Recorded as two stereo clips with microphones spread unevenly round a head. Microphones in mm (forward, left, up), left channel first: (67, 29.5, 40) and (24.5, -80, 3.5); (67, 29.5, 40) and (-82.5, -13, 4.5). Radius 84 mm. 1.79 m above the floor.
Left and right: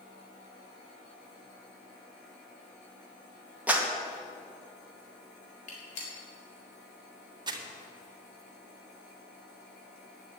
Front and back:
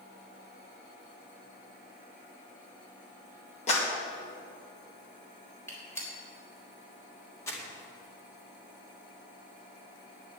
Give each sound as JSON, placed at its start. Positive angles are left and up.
{"t": 3.7, "sound": "a clap", "azimuth_deg": -25, "distance_m": 2.0}
{"t": 5.7, "sound": "a gunshot", "azimuth_deg": 85, "distance_m": 4.0}
{"t": 7.5, "sound": "crumpling", "azimuth_deg": -55, "distance_m": 2.0}